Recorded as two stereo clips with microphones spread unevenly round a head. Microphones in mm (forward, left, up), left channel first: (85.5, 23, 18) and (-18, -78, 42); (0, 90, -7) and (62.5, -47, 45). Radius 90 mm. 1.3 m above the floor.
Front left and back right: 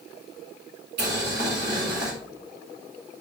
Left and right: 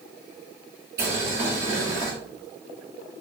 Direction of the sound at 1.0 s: 140° right.